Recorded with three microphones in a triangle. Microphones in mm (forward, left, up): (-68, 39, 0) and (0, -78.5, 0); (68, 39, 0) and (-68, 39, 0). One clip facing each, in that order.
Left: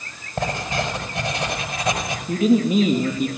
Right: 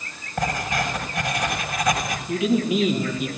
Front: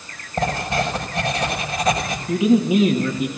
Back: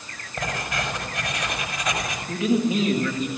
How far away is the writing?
About 6 m.